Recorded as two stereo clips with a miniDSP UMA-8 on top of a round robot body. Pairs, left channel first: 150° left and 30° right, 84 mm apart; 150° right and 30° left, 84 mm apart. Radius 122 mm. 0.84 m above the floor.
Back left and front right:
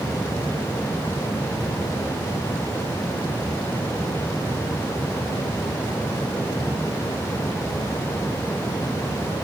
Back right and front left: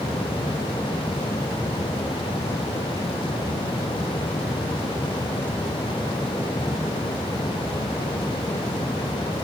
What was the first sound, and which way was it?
Only background noise.